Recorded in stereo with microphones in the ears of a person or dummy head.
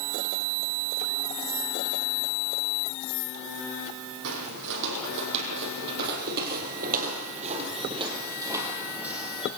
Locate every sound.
4.2 s footsteps: 70° right (ahead or behind), 3.5 m; by 9.5 s centre (ahead or behind), 3 m